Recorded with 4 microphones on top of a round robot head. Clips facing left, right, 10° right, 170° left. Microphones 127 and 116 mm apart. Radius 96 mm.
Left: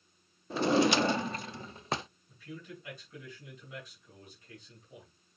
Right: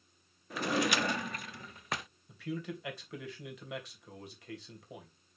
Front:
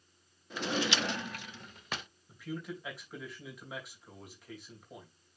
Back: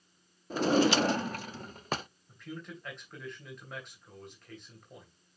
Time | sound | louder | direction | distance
0.5 | a drawer | left 6 dB, back 8 dB | 140° left | 0.6 m
2.3 | a man speaking | right 8 dB, front 4 dB | 95° right | 2.5 m